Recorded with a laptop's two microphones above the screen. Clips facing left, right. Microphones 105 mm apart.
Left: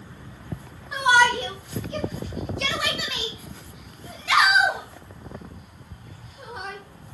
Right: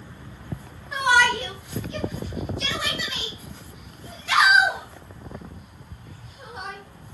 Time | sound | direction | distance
0.9 | a shout | 15° left (ahead or behind) | 1.2 m